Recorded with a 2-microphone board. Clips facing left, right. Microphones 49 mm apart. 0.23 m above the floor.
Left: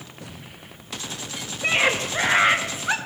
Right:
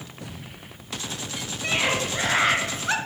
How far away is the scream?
About 4 m.